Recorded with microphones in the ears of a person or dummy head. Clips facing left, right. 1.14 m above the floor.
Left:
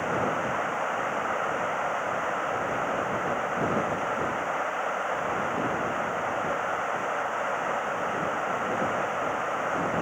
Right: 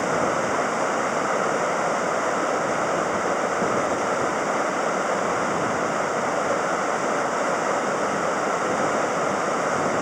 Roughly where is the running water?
Right.